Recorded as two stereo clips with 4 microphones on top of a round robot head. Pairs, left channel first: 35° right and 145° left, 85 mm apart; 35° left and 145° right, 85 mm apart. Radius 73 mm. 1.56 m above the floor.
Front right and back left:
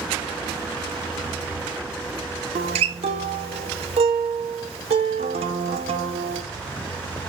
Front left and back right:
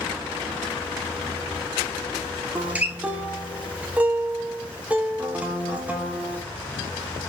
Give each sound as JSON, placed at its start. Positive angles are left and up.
{"t": 2.5, "sound": "a guitar", "azimuth_deg": 140, "distance_m": 0.9}